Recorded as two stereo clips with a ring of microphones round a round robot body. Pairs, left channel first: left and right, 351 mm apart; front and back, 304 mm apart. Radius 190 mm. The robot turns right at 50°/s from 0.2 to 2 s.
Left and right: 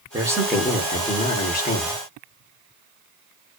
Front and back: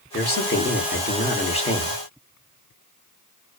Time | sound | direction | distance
0.1 | a man speaking | 20° right | 1.0 m